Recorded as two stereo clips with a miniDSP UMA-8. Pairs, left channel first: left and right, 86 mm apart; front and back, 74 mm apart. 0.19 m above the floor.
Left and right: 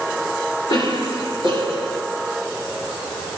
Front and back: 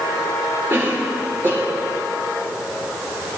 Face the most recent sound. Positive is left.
turn(degrees=125)